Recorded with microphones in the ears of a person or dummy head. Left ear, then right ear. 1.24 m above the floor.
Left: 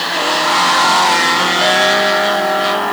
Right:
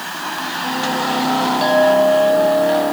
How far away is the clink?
About 2 m.